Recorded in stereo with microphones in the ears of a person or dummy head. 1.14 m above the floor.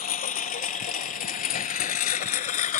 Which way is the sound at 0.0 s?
45° left (ahead or behind).